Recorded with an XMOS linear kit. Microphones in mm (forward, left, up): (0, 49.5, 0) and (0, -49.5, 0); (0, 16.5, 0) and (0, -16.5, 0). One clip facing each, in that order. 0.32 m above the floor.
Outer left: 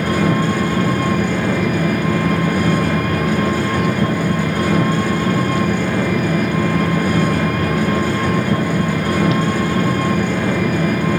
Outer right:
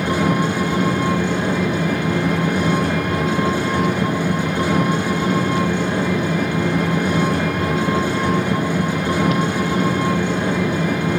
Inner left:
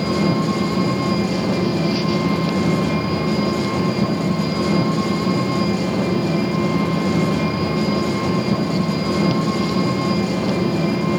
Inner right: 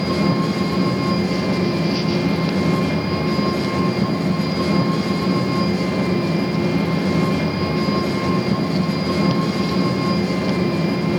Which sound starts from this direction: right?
An engine running, at 0.0 s.